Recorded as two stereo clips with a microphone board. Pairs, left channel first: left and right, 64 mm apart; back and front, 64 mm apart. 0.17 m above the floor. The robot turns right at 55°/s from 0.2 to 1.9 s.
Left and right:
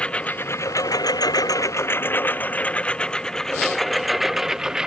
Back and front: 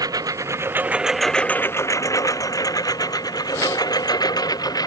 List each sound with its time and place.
0.0 s a lawn mower: 15° left; by 4.9 s 170° right